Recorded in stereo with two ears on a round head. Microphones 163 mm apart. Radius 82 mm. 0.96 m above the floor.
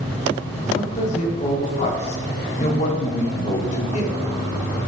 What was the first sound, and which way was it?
A man speaking, 35° left (ahead or behind).